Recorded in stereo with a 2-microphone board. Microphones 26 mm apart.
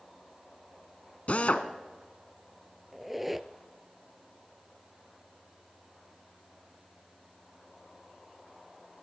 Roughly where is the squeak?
Centre.